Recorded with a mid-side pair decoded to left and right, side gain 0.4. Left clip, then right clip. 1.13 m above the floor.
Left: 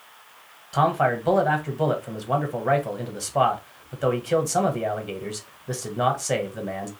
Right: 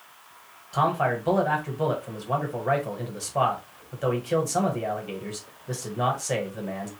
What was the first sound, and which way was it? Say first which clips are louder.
A man speaking: left 3 dB; 30° left.